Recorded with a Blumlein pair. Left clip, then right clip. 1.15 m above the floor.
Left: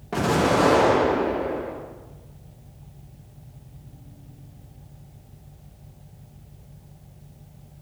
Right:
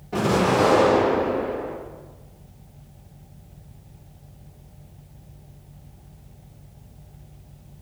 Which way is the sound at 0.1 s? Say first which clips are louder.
Even; 60° left.